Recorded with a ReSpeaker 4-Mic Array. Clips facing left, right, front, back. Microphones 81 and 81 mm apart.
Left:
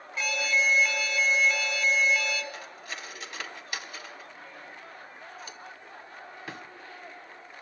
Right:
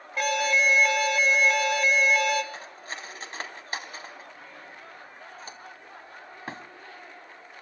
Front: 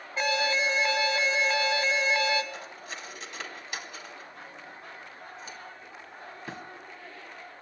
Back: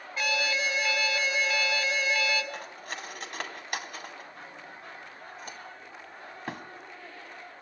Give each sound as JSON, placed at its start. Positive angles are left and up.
{"t": 0.2, "sound": "an alarm", "azimuth_deg": -60, "distance_m": 3.0}
{"t": 2.5, "sound": "cutlery clinking", "azimuth_deg": -145, "distance_m": 2.5}